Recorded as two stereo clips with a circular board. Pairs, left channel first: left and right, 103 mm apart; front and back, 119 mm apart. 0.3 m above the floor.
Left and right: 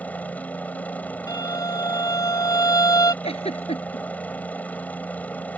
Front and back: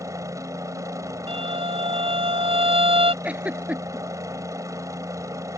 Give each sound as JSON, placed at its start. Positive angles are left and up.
{"t": 0.0, "sound": "a helicopter", "azimuth_deg": 150}
{"t": 1.3, "sound": "a violin", "azimuth_deg": 145}
{"t": 3.2, "sound": "a giggle", "azimuth_deg": 105}